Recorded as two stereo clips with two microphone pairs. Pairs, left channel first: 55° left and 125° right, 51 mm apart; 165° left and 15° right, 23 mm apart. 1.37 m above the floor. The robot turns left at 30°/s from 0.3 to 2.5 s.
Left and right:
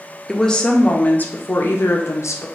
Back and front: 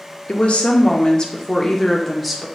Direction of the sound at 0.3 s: 140° left.